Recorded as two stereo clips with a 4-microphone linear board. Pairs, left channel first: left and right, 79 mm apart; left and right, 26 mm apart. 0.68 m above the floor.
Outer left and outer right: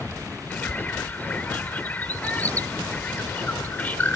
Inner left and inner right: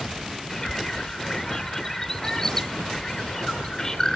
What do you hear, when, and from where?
0.5 s a bird: 20° left (ahead or behind)